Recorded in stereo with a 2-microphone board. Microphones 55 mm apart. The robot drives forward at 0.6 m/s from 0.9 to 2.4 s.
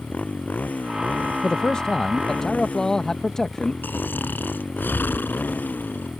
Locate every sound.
0.0 s a motorcycle: 30° left (ahead or behind)
1.4 s a man speaking: 25° left (ahead or behind); by 3.7 s 15° left (ahead or behind)
3.8 s snoring: 40° left (ahead or behind)